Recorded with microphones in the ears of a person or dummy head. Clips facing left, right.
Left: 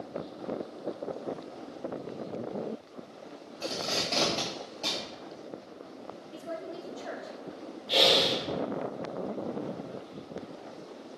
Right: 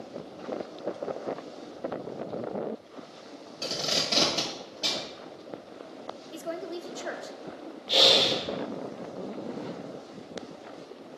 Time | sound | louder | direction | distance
3.6 | tape being pulled | right 1 dB | 20° right (ahead or behind) | 1.4 m
6.3 | a woman speaking | right 4 dB | 65° right (ahead or behind) | 0.6 m
7.9 | breathing | right 1 dB | centre (ahead or behind) | 0.8 m